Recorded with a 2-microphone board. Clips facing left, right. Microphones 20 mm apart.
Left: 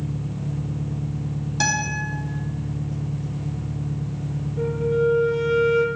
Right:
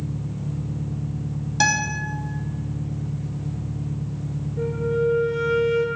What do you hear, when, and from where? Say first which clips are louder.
0.0 s an engine running: left 1 dB; 45° left (ahead or behind), 4 m
1.6 s a guitar: right 2 dB; 15° right (ahead or behind), 2.5 m
4.6 s a flute: left 2 dB; 10° left (ahead or behind), 1.0 m